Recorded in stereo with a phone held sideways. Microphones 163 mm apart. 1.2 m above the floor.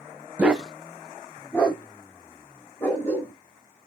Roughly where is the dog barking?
Centre.